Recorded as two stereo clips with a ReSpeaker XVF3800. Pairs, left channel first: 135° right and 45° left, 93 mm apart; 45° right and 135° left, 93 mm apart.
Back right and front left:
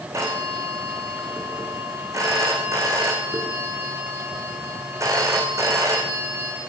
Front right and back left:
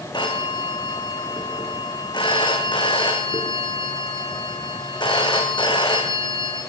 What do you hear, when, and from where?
0.1 s a phone ringing: 10° right, 7 m